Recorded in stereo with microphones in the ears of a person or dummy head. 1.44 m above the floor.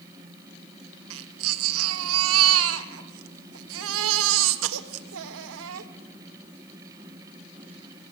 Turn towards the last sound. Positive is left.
turn(degrees=-75)  # may be behind; listen again after turning